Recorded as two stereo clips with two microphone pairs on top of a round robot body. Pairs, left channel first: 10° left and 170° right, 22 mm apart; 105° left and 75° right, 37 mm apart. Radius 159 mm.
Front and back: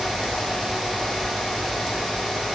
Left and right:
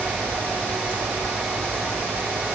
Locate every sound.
Only background noise.